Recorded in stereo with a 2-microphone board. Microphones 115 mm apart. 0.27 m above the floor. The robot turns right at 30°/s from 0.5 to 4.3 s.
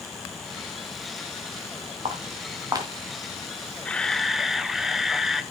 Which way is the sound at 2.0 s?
55° right (ahead or behind).